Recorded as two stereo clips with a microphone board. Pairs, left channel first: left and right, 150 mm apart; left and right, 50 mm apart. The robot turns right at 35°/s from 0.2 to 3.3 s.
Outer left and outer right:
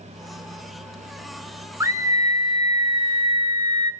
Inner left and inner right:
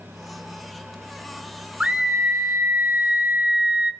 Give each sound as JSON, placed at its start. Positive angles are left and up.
{"t": 1.8, "sound": "a scream", "side_deg": -20, "distance_m": 0.9}